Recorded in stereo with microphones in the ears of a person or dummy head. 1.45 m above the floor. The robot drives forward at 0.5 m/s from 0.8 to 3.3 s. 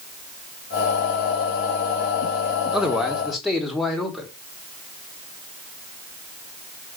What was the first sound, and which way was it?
A man speaking, 5° right (ahead or behind).